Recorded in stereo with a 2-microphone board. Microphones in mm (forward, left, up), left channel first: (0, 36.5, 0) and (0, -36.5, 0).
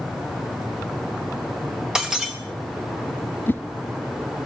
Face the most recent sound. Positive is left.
turn(degrees=30)  # may be behind; listen again after turning